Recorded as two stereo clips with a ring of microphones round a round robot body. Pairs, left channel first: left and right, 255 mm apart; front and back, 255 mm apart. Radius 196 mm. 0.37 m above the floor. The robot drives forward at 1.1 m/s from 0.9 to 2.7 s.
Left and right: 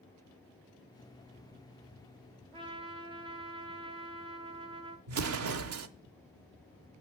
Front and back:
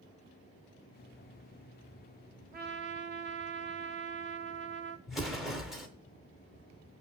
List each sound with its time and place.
2.5 s a trumpet: 150° right, 1.0 m; by 5.0 s 155° right, 1.1 m
5.1 s an explosion: 90° right, 0.8 m